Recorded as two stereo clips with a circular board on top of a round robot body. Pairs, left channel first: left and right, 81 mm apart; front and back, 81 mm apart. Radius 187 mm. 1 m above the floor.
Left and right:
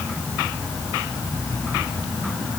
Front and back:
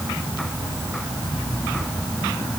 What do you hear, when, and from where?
Only background noise.